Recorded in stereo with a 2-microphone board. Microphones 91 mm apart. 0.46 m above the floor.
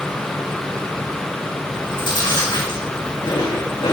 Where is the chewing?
60° left (ahead or behind), 6 m.